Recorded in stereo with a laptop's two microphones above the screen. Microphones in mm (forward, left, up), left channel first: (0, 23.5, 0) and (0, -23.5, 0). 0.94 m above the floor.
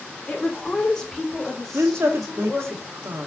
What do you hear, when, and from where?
0.3 s a woman speaking: 20° left (ahead or behind), 2.5 m; by 2.7 s centre (ahead or behind), 3.5 m
1.7 s a woman speaking: 75° right (ahead or behind), 1.7 m